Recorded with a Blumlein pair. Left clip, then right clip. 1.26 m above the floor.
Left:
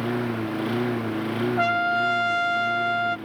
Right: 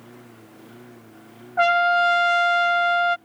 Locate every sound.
0.0 s a lawn mower: 50° left
1.6 s a trumpet: 15° right